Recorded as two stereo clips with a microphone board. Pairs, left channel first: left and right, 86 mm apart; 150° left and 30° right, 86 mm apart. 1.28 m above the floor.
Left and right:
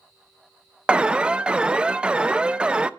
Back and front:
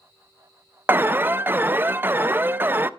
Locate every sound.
0.9 s an alarm: 25° right, 0.5 m